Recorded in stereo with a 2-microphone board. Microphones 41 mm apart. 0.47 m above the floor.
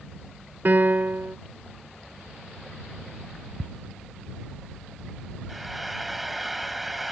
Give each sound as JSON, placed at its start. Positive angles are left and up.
{"t": 0.7, "sound": "a piano", "side_deg": -55}
{"t": 3.6, "sound": "ticking", "side_deg": 0}
{"t": 5.5, "sound": "frying", "side_deg": 0}